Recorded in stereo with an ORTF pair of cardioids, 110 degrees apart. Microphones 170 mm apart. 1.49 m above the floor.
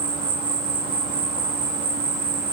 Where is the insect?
55° right, 3 m.